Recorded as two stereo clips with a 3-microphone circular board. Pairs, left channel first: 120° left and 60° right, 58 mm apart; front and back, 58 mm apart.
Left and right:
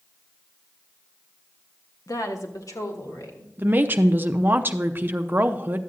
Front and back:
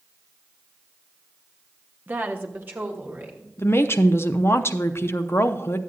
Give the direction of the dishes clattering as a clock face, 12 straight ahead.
No dishes clattering in this recording.